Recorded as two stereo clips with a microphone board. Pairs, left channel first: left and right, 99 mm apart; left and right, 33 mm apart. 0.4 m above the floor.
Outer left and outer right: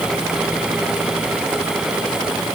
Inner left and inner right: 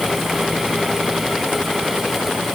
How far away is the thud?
I don't hear a thud.